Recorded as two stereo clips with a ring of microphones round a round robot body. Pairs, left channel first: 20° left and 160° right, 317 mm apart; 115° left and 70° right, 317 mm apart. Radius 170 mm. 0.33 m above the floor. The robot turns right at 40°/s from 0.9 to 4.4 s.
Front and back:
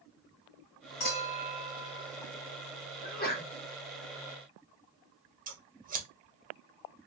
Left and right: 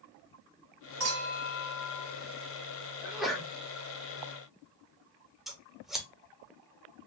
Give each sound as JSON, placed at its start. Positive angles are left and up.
{"t": 1.0, "sound": "a clink", "azimuth_deg": -20, "distance_m": 1.8}
{"t": 3.0, "sound": "a sneeze", "azimuth_deg": 10, "distance_m": 0.9}
{"t": 5.5, "sound": "scissors", "azimuth_deg": -155, "distance_m": 0.8}